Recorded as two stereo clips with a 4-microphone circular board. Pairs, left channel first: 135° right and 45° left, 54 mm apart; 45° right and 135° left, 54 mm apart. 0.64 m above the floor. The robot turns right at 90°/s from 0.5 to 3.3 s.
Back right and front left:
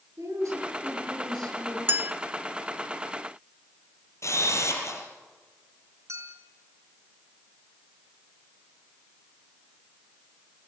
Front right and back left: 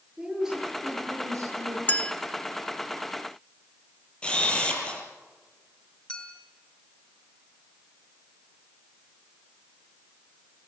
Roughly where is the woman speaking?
Ahead left.